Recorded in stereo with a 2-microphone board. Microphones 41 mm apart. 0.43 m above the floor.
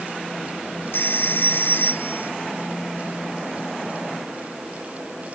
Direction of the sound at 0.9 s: 65° left (ahead or behind).